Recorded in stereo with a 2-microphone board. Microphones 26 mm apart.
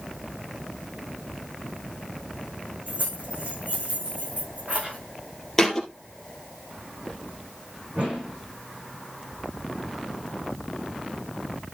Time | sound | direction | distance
2.9 | keys jangling | 60° right (ahead or behind) | 7.5 m
5.6 | a thud | 15° left (ahead or behind) | 2.5 m
7.9 | a whoosh | 60° right (ahead or behind) | 9 m